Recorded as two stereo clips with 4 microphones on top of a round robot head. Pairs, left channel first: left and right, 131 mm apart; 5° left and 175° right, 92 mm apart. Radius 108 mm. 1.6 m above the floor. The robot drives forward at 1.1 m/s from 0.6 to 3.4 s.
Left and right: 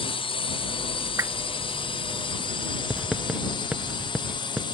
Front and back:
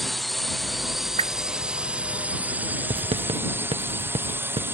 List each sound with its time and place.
0.0 s a drone: 95° left; by 4.8 s 125° left
1.2 s a whoosh: 165° right
2.9 s writing: 175° right